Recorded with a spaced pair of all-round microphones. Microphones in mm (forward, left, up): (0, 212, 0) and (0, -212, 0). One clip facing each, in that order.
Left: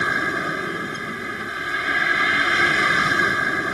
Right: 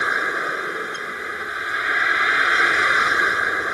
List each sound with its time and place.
0.0 s a vehicle: 45° left (ahead or behind)